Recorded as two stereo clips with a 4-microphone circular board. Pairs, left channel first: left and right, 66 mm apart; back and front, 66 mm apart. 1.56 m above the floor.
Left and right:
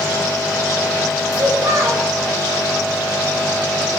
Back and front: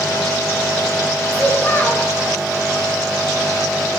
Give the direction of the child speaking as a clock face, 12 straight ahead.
4 o'clock.